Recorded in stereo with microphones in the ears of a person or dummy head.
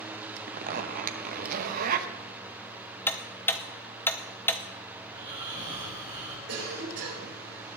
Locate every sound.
0.5 s a zipper: 45° right (ahead or behind), 1.0 m
3.1 s ticking: 10° left (ahead or behind), 0.6 m
5.0 s snoring: 30° right (ahead or behind), 4 m
6.5 s a cough: 70° right (ahead or behind), 5 m